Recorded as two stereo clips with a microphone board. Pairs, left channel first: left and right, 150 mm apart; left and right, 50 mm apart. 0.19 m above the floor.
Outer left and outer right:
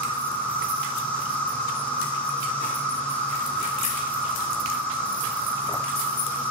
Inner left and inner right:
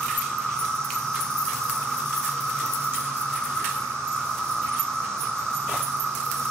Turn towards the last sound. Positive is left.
turn(degrees=10)  # may be behind; listen again after turning